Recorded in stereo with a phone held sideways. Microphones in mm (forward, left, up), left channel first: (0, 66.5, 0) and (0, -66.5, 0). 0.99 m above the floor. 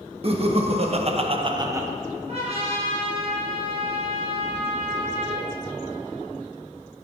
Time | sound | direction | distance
0.2 | laughter | 45° right (ahead or behind) | 1.5 m
2.3 | a trumpet | 45° right (ahead or behind) | 4 m